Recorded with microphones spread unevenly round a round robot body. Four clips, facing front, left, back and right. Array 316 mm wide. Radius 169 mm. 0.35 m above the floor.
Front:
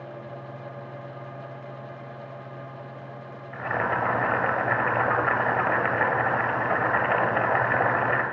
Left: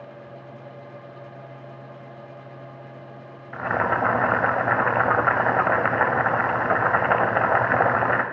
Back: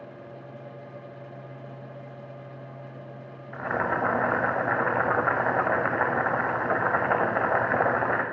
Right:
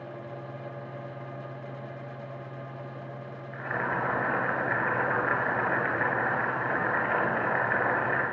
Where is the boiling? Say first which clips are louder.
Left 8 dB, front 1 dB; 75° left, 0.9 m.